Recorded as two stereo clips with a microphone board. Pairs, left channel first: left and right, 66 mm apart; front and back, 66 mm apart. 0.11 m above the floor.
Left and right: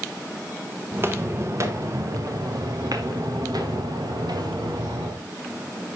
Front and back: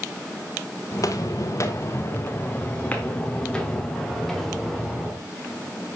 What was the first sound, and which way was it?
Footsteps, 30° right.